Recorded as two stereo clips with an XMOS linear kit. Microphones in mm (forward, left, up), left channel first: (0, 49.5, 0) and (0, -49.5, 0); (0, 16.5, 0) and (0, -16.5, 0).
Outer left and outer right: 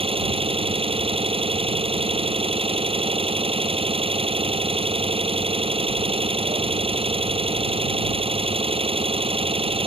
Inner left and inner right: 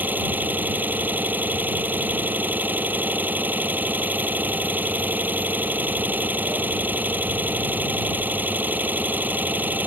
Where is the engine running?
70° right (ahead or behind).